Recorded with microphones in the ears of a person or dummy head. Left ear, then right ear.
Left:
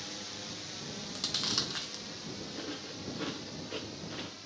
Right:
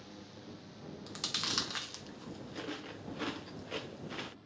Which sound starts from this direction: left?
A drone, at 0.0 s.